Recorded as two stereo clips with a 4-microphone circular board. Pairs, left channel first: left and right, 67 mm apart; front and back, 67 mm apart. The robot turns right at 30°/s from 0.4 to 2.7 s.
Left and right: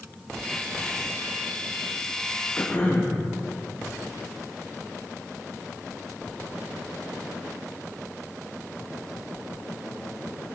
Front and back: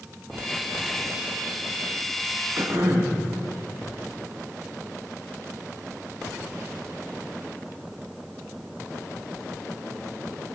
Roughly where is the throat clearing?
Behind left.